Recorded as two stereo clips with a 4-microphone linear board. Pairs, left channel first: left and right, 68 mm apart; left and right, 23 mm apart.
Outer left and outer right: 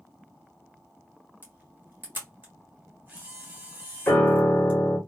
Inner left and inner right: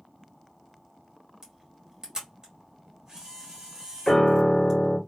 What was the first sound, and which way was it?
A camera shutter, 30° right (ahead or behind).